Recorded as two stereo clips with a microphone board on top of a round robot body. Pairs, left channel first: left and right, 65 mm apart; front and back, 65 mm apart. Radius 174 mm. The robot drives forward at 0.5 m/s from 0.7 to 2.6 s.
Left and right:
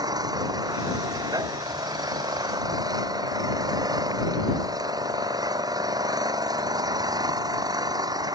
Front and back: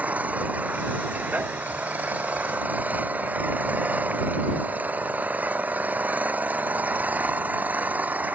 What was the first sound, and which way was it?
An engine running, 110° right.